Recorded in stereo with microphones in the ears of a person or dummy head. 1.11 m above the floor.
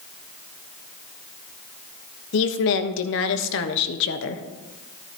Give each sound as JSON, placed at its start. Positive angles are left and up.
{"t": 2.3, "sound": "a woman speaking", "side_deg": 65, "distance_m": 1.1}